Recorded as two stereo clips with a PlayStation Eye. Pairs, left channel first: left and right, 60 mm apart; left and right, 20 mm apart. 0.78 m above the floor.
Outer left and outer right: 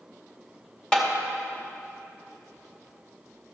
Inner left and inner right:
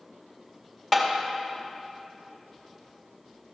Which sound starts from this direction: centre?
Tapping, at 0.9 s.